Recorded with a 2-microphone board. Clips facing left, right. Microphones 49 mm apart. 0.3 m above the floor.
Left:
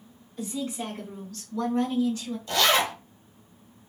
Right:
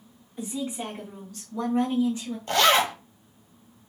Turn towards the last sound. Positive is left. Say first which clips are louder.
# right 3 dB
turn(degrees=-50)  # may be behind; listen again after turning